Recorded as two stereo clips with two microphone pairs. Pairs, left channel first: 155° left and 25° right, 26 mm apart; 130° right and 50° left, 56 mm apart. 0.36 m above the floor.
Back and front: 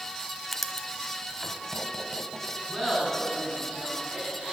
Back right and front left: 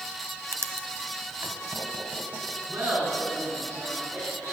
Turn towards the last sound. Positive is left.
turn(degrees=80)